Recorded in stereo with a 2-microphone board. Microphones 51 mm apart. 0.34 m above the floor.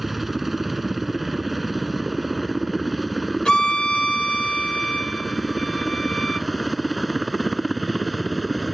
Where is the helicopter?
5° right (ahead or behind); by 8.8 s 5° left (ahead or behind).